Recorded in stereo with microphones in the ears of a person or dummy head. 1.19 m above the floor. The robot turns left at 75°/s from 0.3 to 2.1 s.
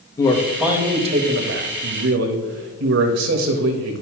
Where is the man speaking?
25° left, 1.2 m; by 4.0 s 110° right, 1.2 m.